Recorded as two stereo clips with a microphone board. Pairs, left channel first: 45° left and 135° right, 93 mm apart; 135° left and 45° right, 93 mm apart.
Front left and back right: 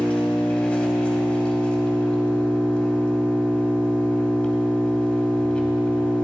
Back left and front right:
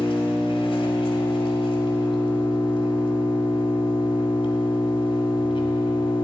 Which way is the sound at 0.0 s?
125° left.